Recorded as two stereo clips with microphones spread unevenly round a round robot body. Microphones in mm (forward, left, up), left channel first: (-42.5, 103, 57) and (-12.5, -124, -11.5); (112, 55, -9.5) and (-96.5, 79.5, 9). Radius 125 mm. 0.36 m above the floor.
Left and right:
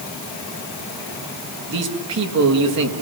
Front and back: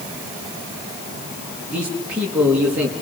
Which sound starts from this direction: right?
A man speaking, at 1.7 s.